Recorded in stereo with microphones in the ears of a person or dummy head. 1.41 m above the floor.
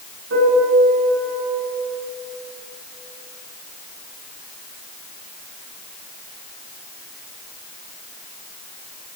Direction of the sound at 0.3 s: 85° right.